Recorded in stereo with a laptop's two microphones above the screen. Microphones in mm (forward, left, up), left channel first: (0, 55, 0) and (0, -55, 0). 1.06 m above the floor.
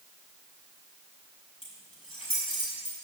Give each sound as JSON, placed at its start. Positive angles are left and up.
{"t": 1.6, "sound": "keys jangling", "side_deg": 50, "distance_m": 5.0}